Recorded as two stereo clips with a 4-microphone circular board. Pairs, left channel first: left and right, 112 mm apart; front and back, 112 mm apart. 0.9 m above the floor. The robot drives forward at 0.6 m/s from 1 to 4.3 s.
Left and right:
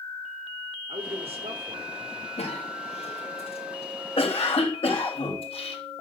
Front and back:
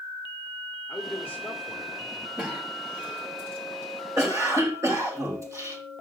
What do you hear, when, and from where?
0.9 s a man speaking: 70° right, 2.5 m; by 2.3 s 90° right, 2.5 m
2.4 s a cough: 100° left, 3.5 m; by 5.8 s 120° left, 3.5 m